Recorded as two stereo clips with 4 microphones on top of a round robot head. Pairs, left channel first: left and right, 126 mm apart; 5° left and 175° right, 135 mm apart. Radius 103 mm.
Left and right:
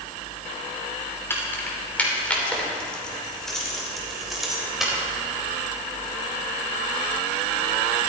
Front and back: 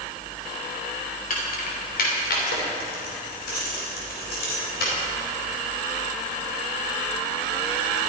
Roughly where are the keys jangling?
Ahead.